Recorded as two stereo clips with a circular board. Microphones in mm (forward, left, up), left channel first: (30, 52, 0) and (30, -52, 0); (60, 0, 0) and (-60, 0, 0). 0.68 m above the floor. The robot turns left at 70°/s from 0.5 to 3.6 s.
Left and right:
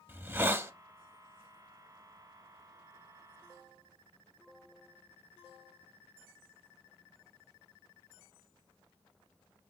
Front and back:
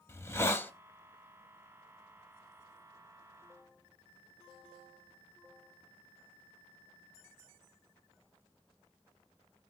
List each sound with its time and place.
0.1 s a hiss: 45° right, 0.5 m; by 0.7 s 60° right, 0.5 m